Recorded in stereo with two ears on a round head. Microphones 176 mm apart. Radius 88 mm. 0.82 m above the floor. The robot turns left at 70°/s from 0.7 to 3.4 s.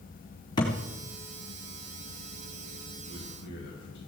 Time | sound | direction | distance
0.6 | a thud | 20° left (ahead or behind) | 3.5 m
3.0 | a man speaking | 80° left | 5.5 m